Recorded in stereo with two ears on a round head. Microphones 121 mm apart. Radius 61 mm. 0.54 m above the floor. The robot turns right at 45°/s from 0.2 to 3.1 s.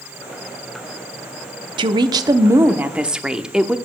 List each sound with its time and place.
1.8 s a woman speaking: 70° right, 0.8 m; by 3.8 s 10° right, 0.8 m